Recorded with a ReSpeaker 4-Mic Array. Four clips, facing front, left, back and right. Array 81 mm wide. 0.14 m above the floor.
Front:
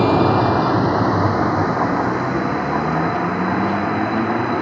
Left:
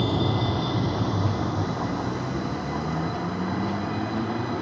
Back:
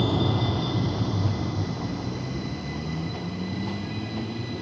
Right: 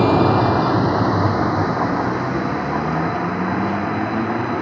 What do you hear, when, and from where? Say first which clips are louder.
0.0 s a vehicle: right 10 dB, front 11 dB; 45° right; by 4.6 s 25° right